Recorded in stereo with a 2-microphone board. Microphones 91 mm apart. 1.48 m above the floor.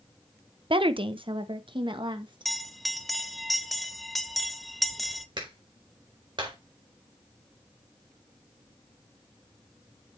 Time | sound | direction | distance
0.7 | a woman speaking | 70° right (ahead or behind) | 0.7 m
2.5 | a bell | centre (ahead or behind) | 0.7 m
5.4 | a clap | 60° right (ahead or behind) | 4 m